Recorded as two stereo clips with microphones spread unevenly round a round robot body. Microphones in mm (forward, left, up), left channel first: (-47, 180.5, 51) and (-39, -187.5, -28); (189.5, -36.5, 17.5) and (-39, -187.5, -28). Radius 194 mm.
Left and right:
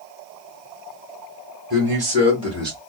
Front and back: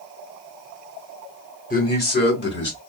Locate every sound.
1.7 s a man speaking: 30° right, 3 m; by 2.8 s 15° right, 2.5 m